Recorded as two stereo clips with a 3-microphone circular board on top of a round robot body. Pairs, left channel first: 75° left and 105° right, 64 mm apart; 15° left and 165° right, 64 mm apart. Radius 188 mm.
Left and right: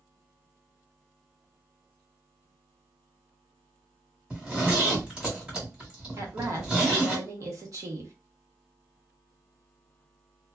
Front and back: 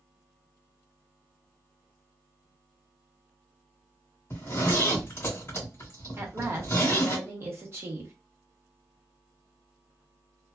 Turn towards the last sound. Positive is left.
turn(degrees=-125)